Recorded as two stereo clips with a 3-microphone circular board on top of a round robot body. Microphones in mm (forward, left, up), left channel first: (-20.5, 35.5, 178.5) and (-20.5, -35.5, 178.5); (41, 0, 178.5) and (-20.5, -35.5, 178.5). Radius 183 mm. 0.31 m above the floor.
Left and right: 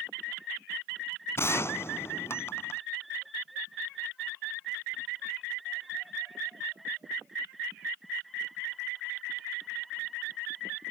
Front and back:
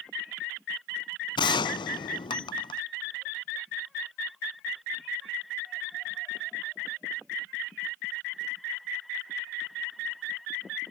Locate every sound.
1.4 s a gunshot: 30° left